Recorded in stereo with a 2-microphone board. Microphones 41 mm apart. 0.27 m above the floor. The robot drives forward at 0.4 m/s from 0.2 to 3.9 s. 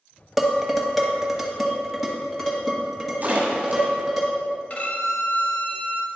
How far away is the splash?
About 1.6 m.